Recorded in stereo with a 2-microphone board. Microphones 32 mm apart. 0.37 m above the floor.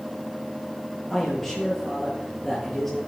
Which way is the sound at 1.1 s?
10° left (ahead or behind).